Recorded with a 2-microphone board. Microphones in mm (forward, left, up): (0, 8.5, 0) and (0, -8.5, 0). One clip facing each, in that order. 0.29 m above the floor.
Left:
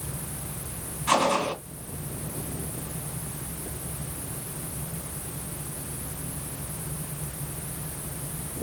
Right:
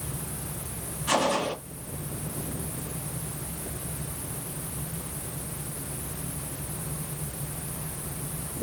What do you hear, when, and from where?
1.1 s a gunshot: 55° left (ahead or behind), 2.5 m